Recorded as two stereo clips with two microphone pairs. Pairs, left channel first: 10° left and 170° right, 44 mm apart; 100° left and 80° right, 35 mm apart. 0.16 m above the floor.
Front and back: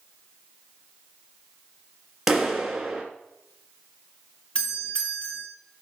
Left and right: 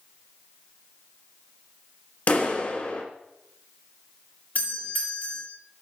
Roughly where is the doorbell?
Left.